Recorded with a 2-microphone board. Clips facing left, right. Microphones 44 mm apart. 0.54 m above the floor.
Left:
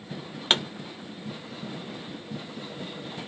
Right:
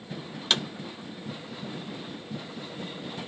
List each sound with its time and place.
0.5 s a pop: 30° left (ahead or behind), 0.5 m